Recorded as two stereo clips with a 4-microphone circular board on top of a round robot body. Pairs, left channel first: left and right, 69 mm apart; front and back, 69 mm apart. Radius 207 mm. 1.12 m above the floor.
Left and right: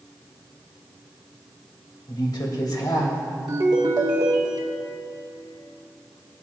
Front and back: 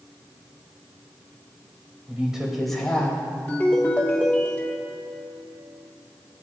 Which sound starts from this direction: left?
A woman speaking, at 2.1 s.